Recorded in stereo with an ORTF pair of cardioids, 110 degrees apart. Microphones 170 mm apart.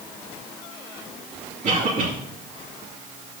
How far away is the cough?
About 3 m.